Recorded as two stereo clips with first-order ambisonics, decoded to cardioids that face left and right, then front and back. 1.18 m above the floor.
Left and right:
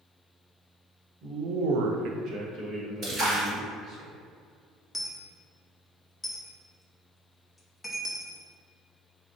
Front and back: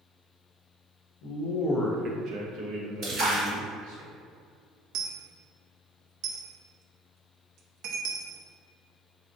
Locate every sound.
1.2 s a man speaking: 30° right, 0.8 m; by 4.0 s 160° right, 3 m
3.0 s a splash: 140° right, 1.2 m
4.9 s a dropped coin: 170° left, 0.6 m